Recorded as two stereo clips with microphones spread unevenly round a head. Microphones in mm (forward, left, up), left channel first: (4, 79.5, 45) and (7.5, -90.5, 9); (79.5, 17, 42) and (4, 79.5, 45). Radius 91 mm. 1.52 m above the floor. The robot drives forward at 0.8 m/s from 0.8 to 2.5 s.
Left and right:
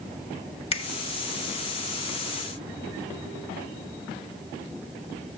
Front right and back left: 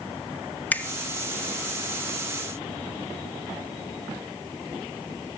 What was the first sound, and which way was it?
A finger snap, 35° left.